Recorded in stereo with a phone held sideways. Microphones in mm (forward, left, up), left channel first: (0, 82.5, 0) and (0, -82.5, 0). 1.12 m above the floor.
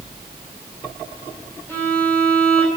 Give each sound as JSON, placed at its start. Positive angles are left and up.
{"t": 1.7, "sound": "a violin", "side_deg": 10, "distance_m": 3.5}